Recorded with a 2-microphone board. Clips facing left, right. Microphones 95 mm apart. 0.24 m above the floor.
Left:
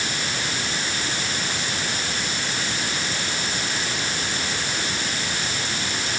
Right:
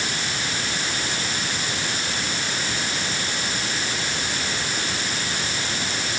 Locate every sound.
Only background noise.